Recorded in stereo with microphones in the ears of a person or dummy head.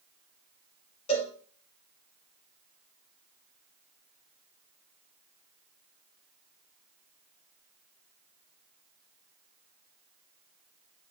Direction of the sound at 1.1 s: 40° left (ahead or behind).